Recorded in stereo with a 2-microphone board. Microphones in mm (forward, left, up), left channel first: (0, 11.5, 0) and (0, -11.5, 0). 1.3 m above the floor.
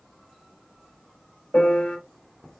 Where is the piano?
75° left (ahead or behind), 3.5 m.